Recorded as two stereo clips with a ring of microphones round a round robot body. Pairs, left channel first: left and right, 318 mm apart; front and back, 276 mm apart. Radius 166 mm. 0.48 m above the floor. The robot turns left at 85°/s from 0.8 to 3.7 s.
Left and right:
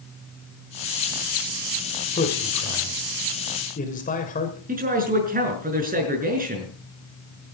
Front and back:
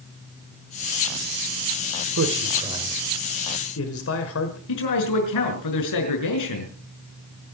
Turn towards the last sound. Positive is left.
turn(degrees=-25)